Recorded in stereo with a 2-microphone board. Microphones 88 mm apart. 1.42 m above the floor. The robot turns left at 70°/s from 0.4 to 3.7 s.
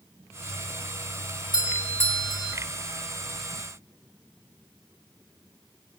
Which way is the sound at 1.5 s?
65° left.